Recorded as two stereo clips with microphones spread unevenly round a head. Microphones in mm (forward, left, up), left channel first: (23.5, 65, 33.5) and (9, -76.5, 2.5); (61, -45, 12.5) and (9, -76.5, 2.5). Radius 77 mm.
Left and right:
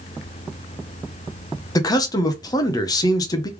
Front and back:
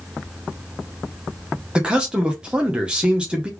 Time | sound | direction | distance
1.8 | a man speaking | 150° left | 0.8 m